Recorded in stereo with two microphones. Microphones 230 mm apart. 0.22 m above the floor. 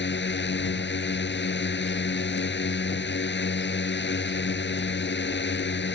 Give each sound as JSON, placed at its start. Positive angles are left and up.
{"t": 0.0, "sound": "a drone", "side_deg": 50}